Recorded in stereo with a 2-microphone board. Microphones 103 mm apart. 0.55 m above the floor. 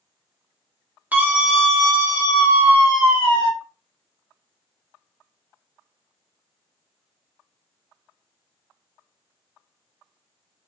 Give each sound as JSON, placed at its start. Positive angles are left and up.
{"t": 1.1, "sound": "a scream", "side_deg": -15, "distance_m": 0.8}